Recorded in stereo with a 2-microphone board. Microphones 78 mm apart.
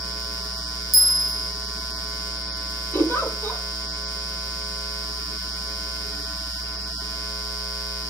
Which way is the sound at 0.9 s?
Centre (ahead or behind).